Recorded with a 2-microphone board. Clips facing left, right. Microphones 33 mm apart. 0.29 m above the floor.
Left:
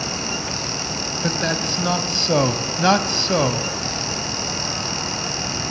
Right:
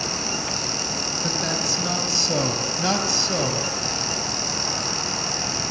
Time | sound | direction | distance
1.2 | a man speaking | 40° left (ahead or behind) | 2 m